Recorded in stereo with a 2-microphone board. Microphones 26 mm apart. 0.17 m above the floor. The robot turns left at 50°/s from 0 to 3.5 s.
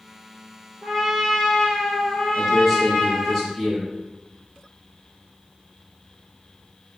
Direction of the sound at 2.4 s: 10° right (ahead or behind).